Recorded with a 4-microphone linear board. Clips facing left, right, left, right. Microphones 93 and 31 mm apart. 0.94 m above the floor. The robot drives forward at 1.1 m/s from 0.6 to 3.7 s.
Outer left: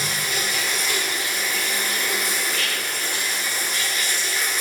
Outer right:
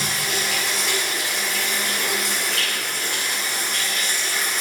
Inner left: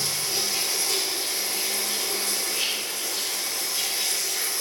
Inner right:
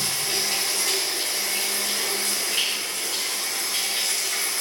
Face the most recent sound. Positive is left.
turn(degrees=-55)  # may be behind; listen again after turning